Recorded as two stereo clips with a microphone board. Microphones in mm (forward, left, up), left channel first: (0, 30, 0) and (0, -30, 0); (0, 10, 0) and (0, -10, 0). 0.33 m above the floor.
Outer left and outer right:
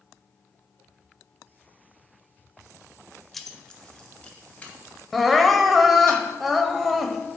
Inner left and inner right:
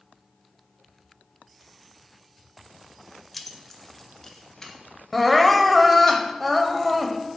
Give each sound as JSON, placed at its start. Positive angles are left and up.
{"t": 3.3, "sound": "keys jangling", "side_deg": 5, "distance_m": 0.5}
{"t": 5.1, "sound": "crying", "side_deg": 0, "distance_m": 0.6}